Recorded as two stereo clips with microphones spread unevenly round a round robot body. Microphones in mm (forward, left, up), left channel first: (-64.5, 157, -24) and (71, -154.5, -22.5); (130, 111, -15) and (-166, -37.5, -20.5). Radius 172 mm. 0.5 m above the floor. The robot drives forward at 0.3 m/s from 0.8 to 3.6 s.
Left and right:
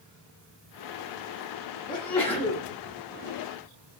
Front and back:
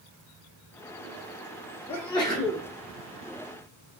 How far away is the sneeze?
About 0.7 m.